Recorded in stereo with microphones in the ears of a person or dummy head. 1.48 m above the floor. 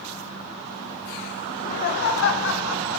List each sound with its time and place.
1.5 s laughter: 40° left (ahead or behind), 1.2 m; by 3.0 s 85° left, 2.5 m